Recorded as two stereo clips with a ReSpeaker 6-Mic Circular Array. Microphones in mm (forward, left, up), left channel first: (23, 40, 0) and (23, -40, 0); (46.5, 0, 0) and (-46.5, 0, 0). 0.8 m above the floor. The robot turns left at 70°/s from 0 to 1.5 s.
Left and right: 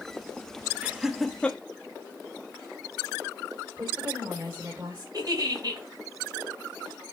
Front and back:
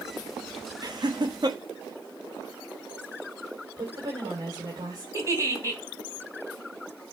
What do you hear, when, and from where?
0.8 s laughter: 155° right, 1.2 m; by 1.6 s 160° left, 1.2 m
3.8 s a woman speaking: 150° right, 3 m
5.1 s a giggle: 125° right, 3 m